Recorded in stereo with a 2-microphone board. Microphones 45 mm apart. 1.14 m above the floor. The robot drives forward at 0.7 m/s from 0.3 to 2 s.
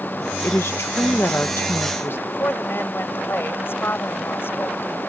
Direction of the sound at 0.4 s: 60° left (ahead or behind).